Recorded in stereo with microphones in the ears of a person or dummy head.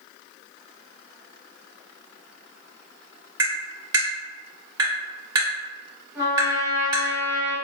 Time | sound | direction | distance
3.4 | tapping | 25° right (ahead or behind) | 1.4 m
6.2 | a trumpet | 15° right (ahead or behind) | 1.9 m